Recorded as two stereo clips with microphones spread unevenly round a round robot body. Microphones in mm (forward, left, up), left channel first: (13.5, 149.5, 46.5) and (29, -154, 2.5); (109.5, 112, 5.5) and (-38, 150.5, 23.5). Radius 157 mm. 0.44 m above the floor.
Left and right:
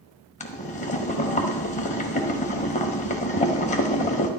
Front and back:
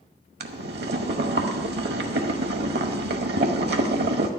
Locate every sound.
0.4 s boiling: 165° left, 1.0 m